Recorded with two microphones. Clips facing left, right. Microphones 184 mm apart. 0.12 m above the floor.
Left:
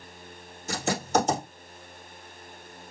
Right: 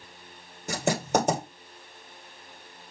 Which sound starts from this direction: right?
Writing, at 0.7 s.